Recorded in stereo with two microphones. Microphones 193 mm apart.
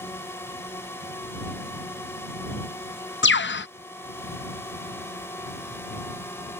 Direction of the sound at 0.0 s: 10° left (ahead or behind).